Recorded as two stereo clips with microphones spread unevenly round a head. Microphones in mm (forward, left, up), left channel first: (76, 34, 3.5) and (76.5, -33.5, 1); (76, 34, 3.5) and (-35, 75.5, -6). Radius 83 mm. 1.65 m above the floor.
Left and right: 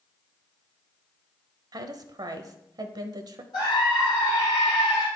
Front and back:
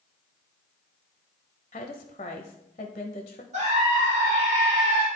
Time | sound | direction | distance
1.7 | a woman speaking | 75° right | 0.6 m
3.5 | a scream | 140° left | 1.7 m